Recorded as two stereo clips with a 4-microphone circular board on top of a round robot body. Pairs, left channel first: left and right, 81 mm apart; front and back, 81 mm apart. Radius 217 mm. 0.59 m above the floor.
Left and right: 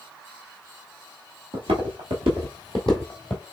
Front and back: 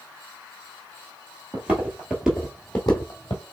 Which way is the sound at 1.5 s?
105° right.